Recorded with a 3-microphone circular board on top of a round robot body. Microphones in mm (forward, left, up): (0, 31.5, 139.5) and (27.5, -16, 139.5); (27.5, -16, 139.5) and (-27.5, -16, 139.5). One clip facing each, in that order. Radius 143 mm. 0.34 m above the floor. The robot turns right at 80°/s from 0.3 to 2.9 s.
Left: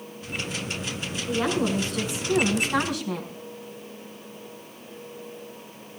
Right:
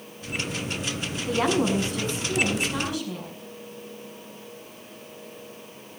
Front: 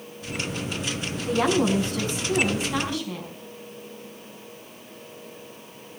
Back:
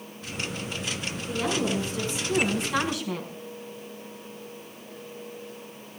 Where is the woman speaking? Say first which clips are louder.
Right 2 dB, front 6 dB; 30° right, 5 m; by 3.3 s 100° left, 5 m.